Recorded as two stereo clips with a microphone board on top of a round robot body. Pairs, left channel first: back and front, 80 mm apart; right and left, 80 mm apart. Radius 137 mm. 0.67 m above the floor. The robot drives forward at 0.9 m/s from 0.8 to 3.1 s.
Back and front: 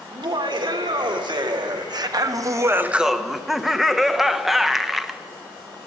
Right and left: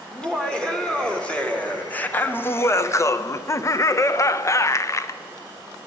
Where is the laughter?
10° right, 2 m; by 5.2 s 85° right, 0.8 m.